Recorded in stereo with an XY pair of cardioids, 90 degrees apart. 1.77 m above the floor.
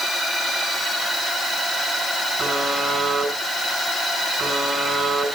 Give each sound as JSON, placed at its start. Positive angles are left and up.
{"t": 2.4, "sound": "a buzzer", "azimuth_deg": -45, "distance_m": 6.0}